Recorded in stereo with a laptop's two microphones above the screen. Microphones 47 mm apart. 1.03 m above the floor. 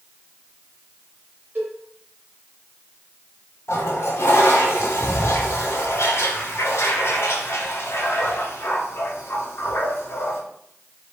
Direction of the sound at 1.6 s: 35° right (ahead or behind).